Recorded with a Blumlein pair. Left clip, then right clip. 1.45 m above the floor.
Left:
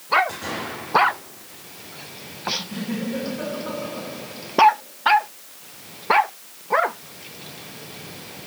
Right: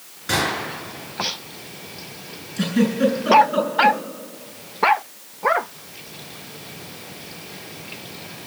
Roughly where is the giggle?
Ahead right.